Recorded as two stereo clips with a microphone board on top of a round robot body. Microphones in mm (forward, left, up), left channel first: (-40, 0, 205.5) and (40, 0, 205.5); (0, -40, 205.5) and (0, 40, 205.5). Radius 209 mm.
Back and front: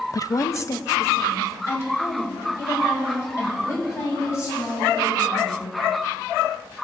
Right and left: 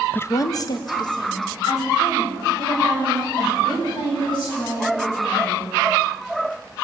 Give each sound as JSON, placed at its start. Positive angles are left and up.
{"t": 0.1, "sound": "a woman speaking", "azimuth_deg": -155, "distance_m": 0.6}